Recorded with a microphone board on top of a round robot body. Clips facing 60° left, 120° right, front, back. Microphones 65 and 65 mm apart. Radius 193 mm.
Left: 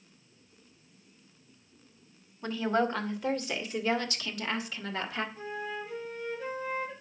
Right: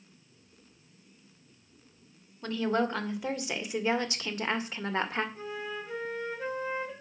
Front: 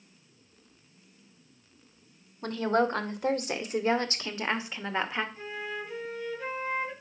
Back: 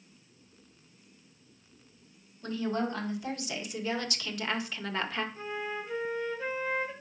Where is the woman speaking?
25° right, 2 m; by 5.2 s 75° right, 1.9 m.